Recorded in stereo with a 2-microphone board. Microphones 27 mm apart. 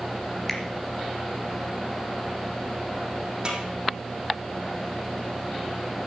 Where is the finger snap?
10° left (ahead or behind), 3 m.